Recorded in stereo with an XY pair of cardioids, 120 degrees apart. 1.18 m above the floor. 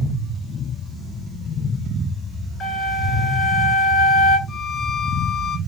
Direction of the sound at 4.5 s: 30° left.